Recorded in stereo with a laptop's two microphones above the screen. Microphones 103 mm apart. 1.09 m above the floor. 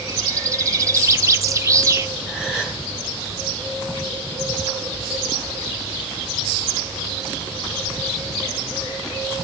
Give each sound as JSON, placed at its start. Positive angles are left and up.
{"t": 0.1, "sound": "a bird", "side_deg": -30, "distance_m": 0.5}
{"t": 2.3, "sound": "a gasp", "side_deg": -5, "distance_m": 6.5}